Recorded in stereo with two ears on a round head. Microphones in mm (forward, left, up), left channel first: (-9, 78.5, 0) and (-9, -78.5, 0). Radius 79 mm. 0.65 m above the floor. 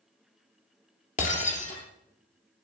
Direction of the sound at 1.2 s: 45° left (ahead or behind).